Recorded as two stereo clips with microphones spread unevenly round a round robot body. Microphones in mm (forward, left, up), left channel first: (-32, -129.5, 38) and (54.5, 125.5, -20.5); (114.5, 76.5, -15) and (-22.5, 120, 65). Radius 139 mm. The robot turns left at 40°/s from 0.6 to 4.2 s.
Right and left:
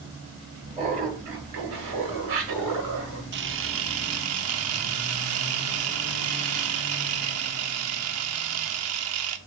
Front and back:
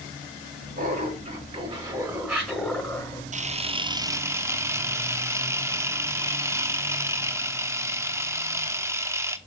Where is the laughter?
140° left, 6.5 m; by 3.2 s 45° left, 6.5 m.